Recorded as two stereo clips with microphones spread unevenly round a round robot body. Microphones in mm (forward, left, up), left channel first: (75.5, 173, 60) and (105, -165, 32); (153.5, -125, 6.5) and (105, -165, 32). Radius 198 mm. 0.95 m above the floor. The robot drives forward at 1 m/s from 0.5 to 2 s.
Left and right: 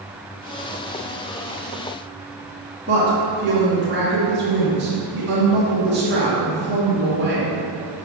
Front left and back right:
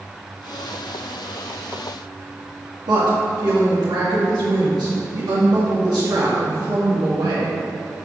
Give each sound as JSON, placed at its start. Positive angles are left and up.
{"t": 2.9, "sound": "a woman speaking", "azimuth_deg": -145, "distance_m": 2.0}